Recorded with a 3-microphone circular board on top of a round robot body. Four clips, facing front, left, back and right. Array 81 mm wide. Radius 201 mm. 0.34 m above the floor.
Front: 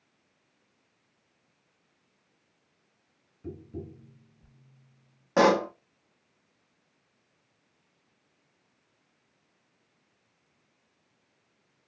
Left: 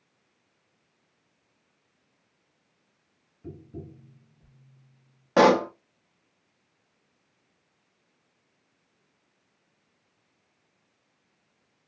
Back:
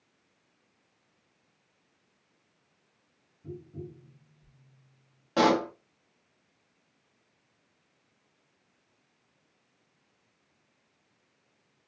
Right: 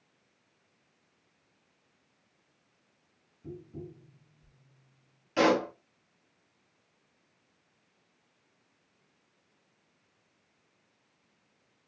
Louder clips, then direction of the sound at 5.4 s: Left 7 dB, front 2 dB; 70° left.